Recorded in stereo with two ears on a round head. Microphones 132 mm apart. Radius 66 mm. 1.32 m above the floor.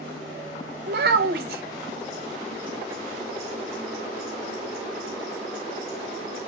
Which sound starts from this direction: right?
A child speaking, at 0.9 s.